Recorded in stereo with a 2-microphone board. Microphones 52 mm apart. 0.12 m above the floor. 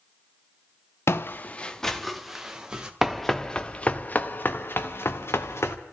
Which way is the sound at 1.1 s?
55° left (ahead or behind).